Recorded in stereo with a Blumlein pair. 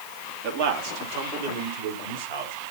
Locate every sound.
0.4 s a man speaking: 45° right, 2 m; by 2.5 s 50° right, 3.5 m